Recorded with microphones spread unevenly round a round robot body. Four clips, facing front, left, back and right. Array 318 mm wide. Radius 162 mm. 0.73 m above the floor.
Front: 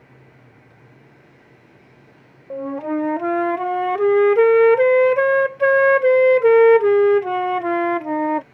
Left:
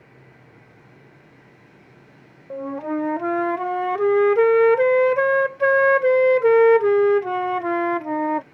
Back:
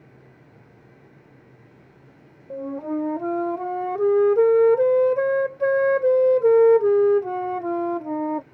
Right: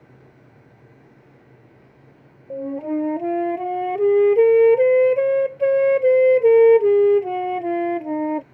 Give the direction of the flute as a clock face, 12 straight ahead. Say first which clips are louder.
Right 1 dB, front 4 dB; 2 o'clock.